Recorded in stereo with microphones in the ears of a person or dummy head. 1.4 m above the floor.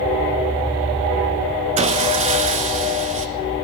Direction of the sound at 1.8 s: 35° right (ahead or behind).